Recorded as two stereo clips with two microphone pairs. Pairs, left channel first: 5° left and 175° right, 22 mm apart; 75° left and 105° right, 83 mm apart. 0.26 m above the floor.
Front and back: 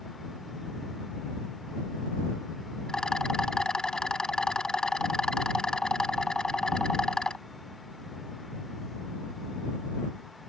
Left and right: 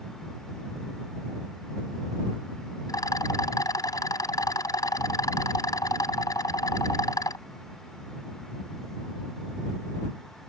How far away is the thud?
I don't hear a thud.